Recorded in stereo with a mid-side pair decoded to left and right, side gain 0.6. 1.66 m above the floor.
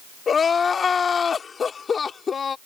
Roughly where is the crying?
Ahead left.